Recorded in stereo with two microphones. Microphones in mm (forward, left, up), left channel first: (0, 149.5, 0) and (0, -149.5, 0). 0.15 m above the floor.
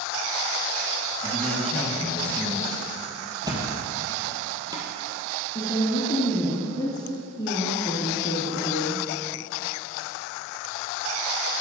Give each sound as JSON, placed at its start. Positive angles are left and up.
{"t": 1.2, "sound": "a man speaking", "side_deg": 5, "distance_m": 1.7}
{"t": 3.4, "sound": "a thud", "side_deg": -15, "distance_m": 1.5}
{"t": 5.5, "sound": "a woman speaking", "side_deg": 15, "distance_m": 1.7}